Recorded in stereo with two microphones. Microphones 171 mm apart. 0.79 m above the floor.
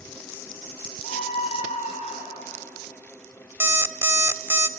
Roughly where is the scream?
Left.